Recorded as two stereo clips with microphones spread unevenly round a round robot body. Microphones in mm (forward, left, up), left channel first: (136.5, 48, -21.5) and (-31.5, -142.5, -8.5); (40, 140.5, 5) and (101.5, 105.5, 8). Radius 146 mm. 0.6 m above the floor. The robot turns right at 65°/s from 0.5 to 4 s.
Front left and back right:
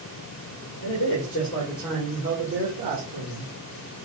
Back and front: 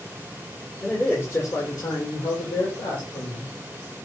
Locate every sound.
0.8 s a man speaking: 65° left, 1.7 m; by 3.5 s 120° right, 1.7 m